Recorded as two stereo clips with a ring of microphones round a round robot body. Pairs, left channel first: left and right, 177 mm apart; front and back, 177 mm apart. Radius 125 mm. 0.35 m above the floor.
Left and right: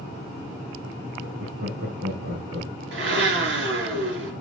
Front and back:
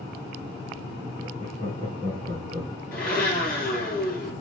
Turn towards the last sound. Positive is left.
turn(degrees=-85)